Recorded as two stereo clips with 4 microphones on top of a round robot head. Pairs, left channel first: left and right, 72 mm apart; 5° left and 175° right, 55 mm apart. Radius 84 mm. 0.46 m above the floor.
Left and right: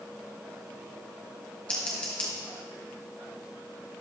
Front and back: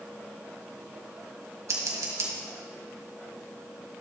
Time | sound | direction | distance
1.7 | scissors | 165° left | 2 m